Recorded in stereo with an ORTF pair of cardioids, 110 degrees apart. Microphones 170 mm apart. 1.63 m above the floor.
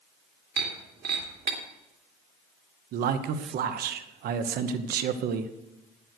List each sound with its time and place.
0.6 s breaking glass: 65° right, 2.5 m
2.9 s a man speaking: 65° right, 1.0 m